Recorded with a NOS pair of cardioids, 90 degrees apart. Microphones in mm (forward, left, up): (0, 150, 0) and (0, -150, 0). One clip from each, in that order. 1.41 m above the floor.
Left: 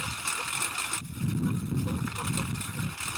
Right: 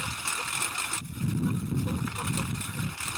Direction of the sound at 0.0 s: 5° right.